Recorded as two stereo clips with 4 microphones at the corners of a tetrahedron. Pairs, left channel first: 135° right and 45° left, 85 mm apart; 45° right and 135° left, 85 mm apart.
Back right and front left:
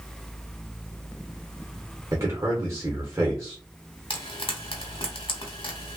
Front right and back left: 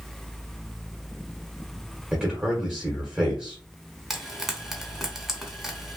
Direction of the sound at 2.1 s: 65° left.